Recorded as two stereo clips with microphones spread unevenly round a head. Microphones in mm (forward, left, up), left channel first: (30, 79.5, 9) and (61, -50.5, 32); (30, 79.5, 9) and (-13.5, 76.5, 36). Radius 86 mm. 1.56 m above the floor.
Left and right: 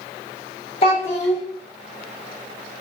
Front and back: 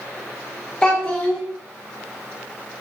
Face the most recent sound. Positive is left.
turn(degrees=120)